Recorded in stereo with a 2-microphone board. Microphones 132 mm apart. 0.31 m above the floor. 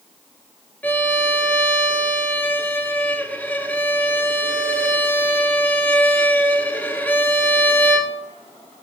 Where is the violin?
15° left (ahead or behind), 0.9 m.